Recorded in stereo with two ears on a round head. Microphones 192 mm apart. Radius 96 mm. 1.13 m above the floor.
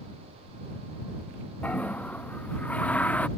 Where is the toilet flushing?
5° left (ahead or behind).